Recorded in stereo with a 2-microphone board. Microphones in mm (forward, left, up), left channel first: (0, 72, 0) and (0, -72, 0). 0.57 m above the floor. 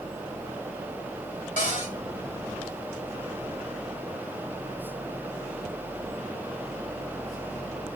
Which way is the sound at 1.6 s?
65° left (ahead or behind).